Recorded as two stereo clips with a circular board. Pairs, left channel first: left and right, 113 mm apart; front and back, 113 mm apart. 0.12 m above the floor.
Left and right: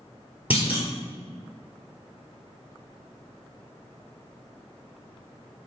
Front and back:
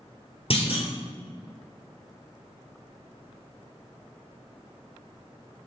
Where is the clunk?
15° right, 1.3 m.